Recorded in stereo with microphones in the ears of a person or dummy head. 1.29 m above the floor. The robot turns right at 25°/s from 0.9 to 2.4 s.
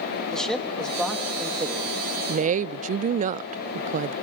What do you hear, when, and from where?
0.3 s a man speaking: centre (ahead or behind), 2.5 m; by 1.9 s 25° right (ahead or behind), 2.5 m
2.3 s a woman speaking: 40° right (ahead or behind), 0.5 m; by 4.1 s 45° right (ahead or behind), 0.5 m